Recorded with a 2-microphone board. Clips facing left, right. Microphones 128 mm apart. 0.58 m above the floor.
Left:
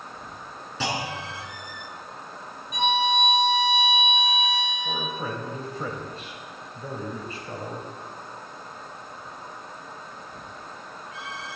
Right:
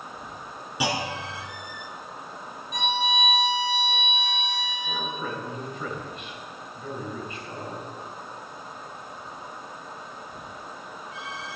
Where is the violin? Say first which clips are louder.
Left 4 dB; 5° left (ahead or behind), 8.5 m.